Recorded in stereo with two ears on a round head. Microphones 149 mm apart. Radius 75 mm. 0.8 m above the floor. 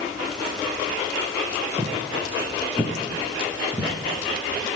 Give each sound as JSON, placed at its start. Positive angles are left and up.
{"t": 1.8, "sound": "footsteps", "side_deg": -20, "distance_m": 2.5}